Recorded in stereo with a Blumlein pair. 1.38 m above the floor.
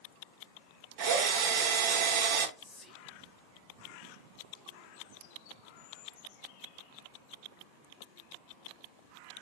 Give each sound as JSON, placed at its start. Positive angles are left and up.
{"t": 1.0, "sound": "a drill", "azimuth_deg": -50, "distance_m": 1.0}
{"t": 2.6, "sound": "whispering", "azimuth_deg": 15, "distance_m": 0.8}